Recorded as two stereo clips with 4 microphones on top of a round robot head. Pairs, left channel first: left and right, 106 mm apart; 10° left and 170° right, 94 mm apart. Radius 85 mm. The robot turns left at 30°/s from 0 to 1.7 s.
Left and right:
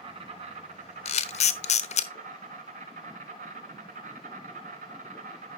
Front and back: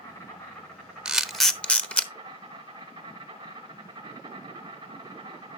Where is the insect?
55° right, 2.5 m; by 5.6 s 105° right, 2.5 m.